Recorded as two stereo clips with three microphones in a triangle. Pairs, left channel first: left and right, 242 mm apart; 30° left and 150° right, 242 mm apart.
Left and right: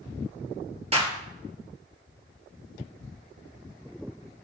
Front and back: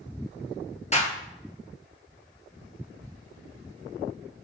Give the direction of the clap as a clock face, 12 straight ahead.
1 o'clock.